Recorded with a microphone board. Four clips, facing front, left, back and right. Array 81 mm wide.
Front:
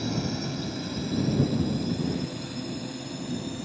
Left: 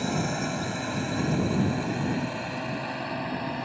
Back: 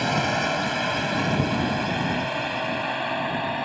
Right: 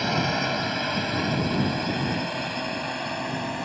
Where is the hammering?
No hammering in this recording.